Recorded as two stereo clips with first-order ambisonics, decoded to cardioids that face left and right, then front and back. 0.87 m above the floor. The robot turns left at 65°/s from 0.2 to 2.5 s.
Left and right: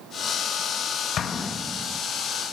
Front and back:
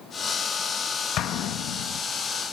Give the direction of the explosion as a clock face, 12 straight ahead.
11 o'clock.